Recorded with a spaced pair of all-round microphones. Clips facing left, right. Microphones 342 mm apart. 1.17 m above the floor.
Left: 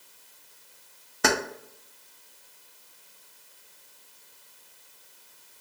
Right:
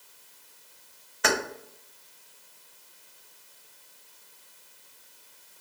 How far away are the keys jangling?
About 0.7 m.